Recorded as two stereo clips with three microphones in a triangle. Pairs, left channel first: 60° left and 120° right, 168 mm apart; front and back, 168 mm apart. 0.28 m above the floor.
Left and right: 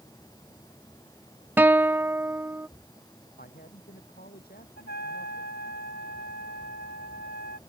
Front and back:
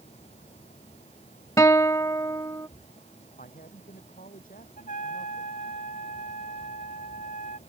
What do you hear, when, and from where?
1.6 s a guitar: 50° right
3.4 s a man speaking: 35° left
4.8 s a trumpet: 40° left